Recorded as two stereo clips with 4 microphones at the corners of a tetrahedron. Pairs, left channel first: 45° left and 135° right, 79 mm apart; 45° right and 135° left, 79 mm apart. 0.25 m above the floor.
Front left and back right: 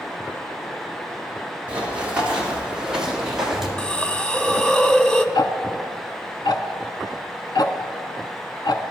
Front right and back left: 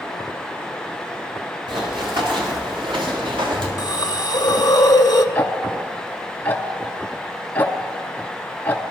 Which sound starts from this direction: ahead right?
A hiss, at 3.8 s.